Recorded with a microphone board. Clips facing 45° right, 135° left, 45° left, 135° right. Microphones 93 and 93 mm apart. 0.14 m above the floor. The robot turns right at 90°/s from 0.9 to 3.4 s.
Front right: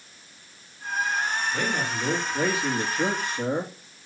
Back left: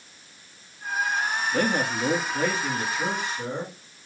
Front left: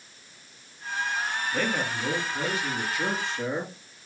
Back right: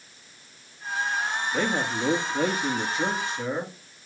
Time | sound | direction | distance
1.5 | a man speaking | 150° left | 3 m